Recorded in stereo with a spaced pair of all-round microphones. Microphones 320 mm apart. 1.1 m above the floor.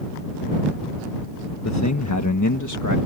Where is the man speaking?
55° left (ahead or behind); by 3.0 s 70° left (ahead or behind).